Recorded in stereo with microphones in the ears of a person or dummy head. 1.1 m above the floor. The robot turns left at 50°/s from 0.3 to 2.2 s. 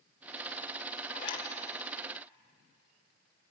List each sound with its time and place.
1.1 s a zipper: 55° left (ahead or behind), 3.5 m; by 1.5 s 40° left (ahead or behind), 3.5 m